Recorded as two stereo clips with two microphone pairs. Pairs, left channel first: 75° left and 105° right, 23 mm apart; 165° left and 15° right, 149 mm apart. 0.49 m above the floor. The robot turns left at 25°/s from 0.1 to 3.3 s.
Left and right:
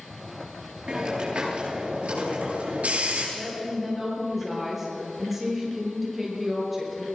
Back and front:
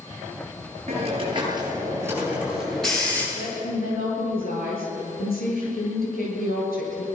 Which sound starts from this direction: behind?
A woman speaking, at 3.4 s.